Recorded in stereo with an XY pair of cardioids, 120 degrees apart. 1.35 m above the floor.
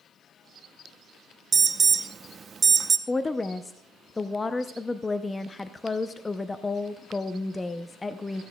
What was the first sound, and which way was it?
An alarm, 30° right.